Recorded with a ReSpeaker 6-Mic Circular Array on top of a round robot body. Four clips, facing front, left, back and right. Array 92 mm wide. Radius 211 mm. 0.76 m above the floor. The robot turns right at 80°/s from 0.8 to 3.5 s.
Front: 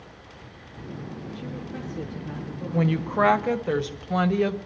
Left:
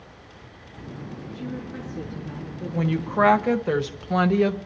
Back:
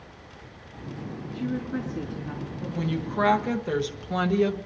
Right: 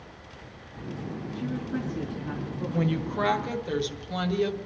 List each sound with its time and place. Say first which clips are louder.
1.3 s a woman speaking: right 3 dB, back 9 dB; 160° left, 3 m; by 3.5 s 25° right, 3 m
2.7 s a woman speaking: left 4 dB, front 5 dB; 5° left, 1.0 m; by 4.5 s 70° left, 1.0 m